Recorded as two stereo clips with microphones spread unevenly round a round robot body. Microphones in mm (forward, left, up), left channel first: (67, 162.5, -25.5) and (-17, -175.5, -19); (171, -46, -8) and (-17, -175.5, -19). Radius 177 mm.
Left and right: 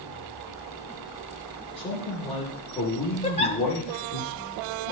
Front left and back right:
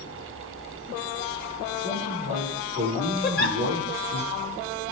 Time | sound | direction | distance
1.8 | a man speaking | 150° left | 9.5 m
3.2 | a giggle | 15° left | 1.2 m